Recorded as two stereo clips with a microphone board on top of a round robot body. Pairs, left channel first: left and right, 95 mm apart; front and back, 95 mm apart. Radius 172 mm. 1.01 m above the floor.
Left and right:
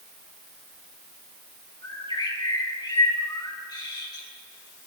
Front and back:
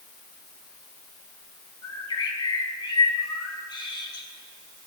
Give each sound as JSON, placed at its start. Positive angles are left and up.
{"t": 1.8, "sound": "a bird", "azimuth_deg": 45, "distance_m": 4.5}